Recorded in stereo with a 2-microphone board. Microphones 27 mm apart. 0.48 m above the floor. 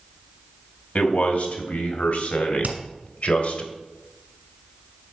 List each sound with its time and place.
0.9 s a man speaking: 70° left (ahead or behind), 2.5 m; by 3.6 s 55° left (ahead or behind), 1.9 m
2.6 s hammering: 65° right (ahead or behind), 2 m